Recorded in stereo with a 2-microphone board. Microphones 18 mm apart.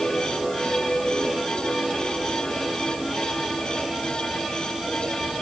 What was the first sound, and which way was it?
Only background noise.